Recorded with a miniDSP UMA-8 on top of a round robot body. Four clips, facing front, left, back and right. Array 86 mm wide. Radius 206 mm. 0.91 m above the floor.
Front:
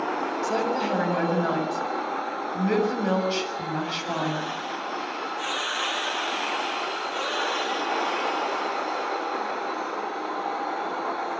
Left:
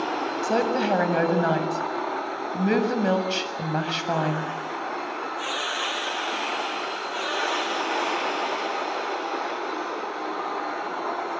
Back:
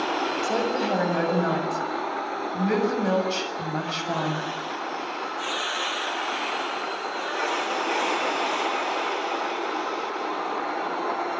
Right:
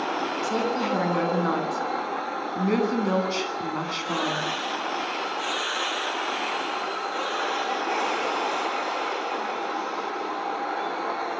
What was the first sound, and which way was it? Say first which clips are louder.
A woman speaking: left 4 dB, front 1 dB; 95° left.